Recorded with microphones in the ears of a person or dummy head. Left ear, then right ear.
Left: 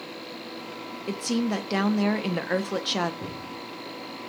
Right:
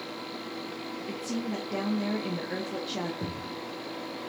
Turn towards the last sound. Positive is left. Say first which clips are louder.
# even
turn(degrees=-30)  # may be behind; listen again after turning